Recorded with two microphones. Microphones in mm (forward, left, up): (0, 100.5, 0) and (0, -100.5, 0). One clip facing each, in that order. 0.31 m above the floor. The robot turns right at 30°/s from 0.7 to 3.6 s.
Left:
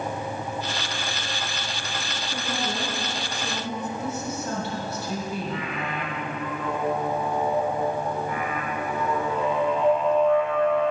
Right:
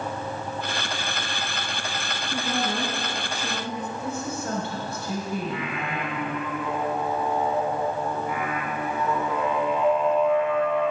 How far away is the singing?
About 1.6 m.